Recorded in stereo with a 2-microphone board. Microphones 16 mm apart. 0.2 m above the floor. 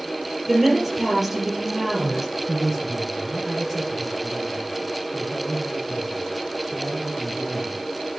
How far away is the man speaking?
About 1.5 m.